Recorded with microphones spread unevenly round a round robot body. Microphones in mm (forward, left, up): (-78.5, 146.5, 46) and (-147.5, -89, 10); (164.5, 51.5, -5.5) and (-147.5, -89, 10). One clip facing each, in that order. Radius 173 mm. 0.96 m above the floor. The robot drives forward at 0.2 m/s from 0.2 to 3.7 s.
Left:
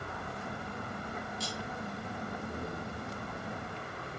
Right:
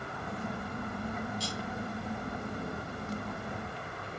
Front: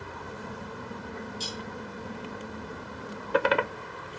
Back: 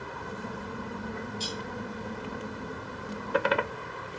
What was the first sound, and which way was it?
Cutlery clinking, 50° left.